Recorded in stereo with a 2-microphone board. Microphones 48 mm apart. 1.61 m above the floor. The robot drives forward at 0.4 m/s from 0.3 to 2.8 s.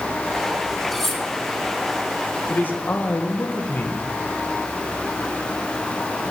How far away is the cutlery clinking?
About 1.2 m.